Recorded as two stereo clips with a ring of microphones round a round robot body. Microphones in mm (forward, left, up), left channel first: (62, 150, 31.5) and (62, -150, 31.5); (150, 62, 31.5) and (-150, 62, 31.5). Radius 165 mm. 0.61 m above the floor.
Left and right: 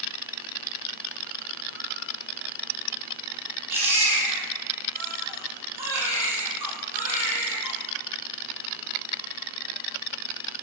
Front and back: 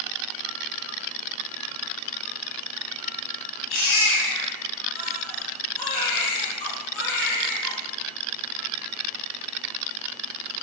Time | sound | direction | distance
3.7 | a baby crying | 10° right | 5.5 m